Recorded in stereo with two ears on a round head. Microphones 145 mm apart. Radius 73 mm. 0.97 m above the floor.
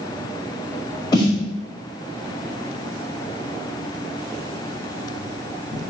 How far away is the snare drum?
About 1.1 m.